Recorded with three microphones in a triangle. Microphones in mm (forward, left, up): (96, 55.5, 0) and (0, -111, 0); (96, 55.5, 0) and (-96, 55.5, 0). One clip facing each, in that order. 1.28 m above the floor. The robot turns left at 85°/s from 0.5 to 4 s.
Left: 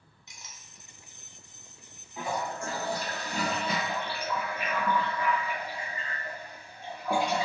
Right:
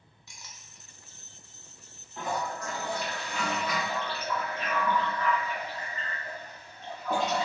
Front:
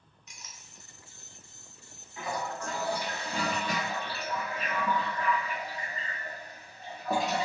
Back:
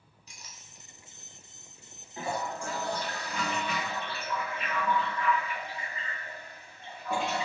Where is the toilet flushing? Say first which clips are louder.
Even, back 1 dB; 145° left, 0.6 m; by 7.5 s 15° right, 0.6 m.